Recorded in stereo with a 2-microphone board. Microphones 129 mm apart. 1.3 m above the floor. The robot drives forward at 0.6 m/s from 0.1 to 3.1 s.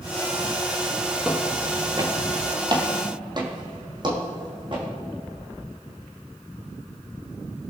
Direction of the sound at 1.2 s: 10° right (ahead or behind).